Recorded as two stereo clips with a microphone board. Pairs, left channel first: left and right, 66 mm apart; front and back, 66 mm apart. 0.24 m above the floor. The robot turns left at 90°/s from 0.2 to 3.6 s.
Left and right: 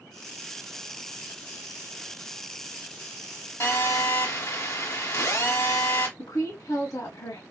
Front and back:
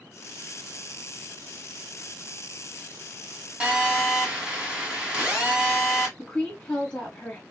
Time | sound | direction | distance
3.6 | a phone buzzing | 110° left | 1.8 m
6.2 | a woman speaking | 80° left | 1.8 m